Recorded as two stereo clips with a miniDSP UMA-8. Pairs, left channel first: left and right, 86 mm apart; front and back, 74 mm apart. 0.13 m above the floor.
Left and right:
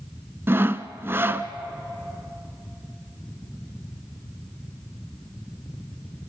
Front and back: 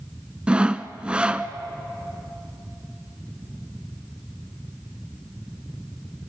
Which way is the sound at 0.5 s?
120° right.